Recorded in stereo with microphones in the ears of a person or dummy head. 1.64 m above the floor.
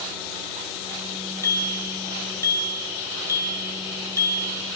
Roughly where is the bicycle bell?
Centre.